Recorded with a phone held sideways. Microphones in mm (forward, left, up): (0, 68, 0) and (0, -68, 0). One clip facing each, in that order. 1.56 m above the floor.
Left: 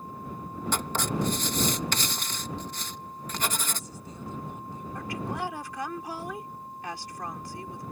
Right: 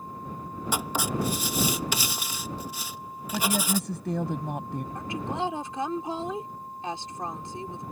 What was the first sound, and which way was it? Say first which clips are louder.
Writing: right 1 dB; 10° right (ahead or behind).